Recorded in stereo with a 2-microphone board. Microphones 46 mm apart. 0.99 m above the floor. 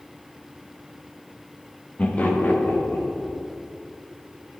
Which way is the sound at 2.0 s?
25° left (ahead or behind).